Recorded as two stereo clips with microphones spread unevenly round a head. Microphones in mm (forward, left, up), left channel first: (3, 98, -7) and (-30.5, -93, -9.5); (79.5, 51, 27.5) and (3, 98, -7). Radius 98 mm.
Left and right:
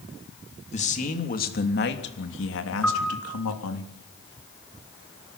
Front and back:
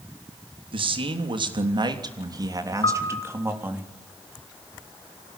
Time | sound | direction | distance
0.7 | a man speaking | 135° left | 3.5 m
2.8 | a piano | 5° right | 5 m